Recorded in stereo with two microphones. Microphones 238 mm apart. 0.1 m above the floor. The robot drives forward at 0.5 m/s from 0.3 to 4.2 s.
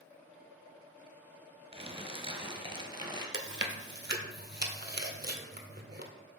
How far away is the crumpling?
About 1.1 m.